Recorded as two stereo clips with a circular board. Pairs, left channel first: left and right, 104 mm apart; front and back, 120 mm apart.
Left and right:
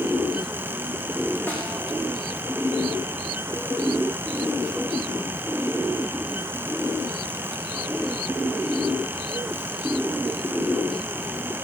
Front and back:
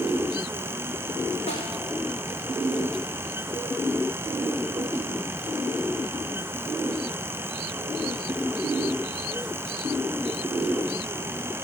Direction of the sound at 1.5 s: 20° left.